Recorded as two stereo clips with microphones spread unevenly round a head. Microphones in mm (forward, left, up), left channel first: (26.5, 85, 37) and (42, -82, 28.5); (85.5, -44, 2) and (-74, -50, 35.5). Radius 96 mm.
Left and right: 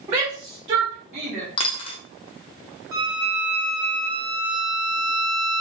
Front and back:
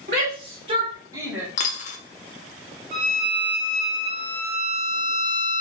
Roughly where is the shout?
Behind right.